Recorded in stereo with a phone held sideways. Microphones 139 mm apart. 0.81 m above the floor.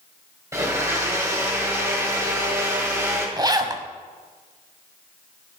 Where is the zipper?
30° right (ahead or behind), 1.0 m.